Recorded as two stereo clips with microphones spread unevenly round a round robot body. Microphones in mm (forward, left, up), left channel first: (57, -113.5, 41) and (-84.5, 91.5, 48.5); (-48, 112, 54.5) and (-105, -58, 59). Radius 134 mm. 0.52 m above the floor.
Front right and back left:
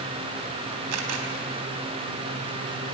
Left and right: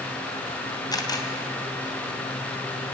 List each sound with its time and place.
0.9 s a camera shutter: 140° left, 3.5 m